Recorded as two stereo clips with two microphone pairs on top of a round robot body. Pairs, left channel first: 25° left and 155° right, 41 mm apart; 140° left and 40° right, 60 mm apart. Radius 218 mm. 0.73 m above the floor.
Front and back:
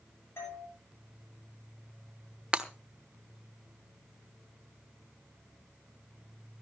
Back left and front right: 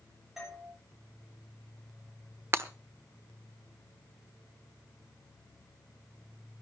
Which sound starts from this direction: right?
Breaking glass, at 2.5 s.